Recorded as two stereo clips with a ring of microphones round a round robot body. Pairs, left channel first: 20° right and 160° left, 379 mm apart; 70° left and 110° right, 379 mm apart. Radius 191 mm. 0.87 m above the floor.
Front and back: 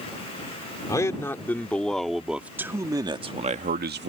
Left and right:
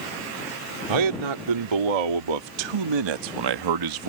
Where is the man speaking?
105° right; by 4.1 s 145° right.